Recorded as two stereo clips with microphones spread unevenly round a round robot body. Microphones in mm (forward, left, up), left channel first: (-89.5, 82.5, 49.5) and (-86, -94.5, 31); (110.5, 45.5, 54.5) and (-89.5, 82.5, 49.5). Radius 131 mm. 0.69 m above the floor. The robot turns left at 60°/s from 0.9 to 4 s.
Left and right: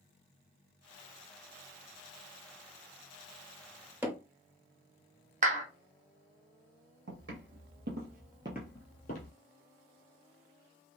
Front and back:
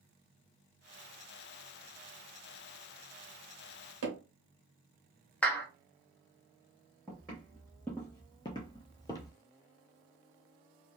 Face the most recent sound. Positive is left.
turn(degrees=60)